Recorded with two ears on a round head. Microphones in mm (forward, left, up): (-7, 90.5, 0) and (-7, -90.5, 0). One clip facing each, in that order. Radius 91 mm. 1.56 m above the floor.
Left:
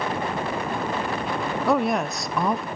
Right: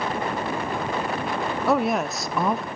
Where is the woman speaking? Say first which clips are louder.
Even; centre (ahead or behind), 0.6 m.